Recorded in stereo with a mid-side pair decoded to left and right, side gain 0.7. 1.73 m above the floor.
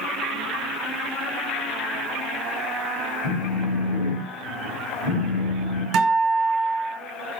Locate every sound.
3.2 s a phone buzzing: 65° left, 1.2 m
5.9 s a guitar: 55° right, 1.0 m